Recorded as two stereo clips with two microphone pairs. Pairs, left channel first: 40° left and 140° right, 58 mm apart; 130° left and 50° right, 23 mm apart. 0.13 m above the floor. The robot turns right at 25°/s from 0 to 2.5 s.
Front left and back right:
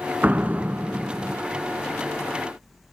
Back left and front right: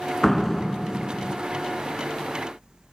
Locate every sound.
0.2 s a door slam: 165° right, 0.9 m; by 1.4 s 135° right, 0.9 m